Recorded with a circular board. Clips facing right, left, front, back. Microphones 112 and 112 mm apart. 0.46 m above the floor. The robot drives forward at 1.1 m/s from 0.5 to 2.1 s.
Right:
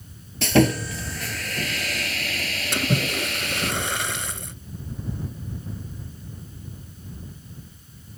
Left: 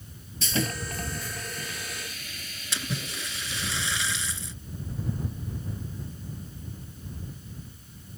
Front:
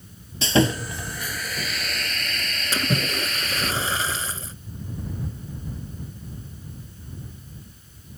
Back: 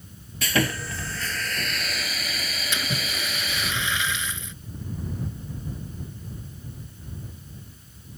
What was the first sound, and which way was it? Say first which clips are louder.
Sawing: right 12 dB, front 5 dB; 65° right.